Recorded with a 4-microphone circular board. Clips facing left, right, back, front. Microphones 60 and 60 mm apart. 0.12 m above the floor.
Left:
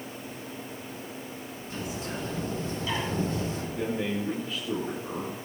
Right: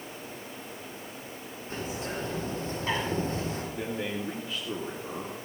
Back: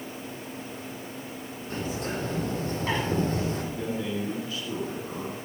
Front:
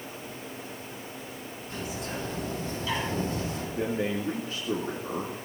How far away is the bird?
About 4.5 m.